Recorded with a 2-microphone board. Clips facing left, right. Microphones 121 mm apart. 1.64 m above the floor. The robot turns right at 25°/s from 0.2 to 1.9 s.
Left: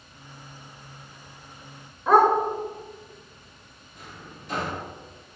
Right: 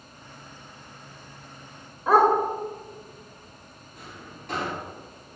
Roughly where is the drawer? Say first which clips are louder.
Even; right.